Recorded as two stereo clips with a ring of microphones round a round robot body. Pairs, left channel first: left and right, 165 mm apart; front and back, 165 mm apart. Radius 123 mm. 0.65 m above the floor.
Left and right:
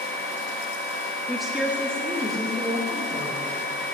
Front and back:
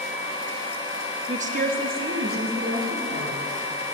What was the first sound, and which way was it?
A woman speaking, 175° left.